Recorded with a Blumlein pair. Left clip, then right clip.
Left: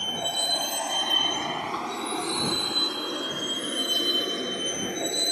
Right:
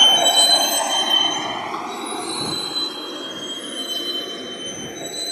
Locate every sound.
0.0 s a vehicle: 40° right; by 5.3 s 10° left